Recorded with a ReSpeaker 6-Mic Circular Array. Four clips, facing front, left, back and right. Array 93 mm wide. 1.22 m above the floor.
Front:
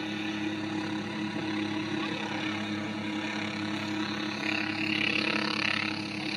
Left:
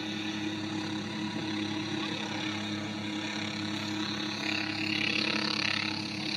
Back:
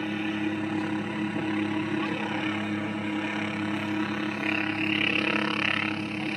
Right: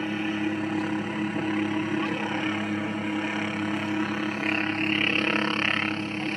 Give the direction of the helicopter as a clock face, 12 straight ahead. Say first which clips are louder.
Right 7 dB, back 4 dB; 4 o'clock.